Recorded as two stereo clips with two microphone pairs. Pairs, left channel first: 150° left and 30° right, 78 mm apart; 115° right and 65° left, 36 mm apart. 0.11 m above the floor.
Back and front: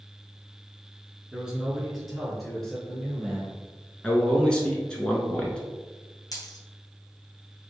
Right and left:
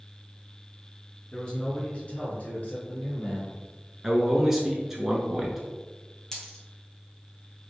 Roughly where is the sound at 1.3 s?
Right.